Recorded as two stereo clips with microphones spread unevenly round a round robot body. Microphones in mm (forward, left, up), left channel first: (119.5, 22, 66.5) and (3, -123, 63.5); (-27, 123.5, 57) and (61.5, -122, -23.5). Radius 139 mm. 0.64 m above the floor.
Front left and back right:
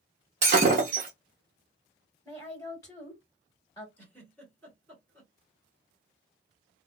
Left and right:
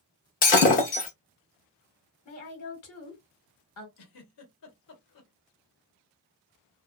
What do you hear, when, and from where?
0.4 s breaking glass: 175° left, 0.8 m
2.2 s a woman speaking: 120° left, 1.5 m
4.0 s a giggle: 135° left, 1.1 m